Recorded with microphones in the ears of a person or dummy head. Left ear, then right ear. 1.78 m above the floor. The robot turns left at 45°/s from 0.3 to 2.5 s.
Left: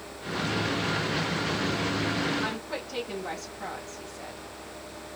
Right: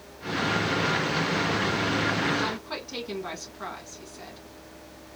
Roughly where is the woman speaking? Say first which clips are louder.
Right 1 dB; right.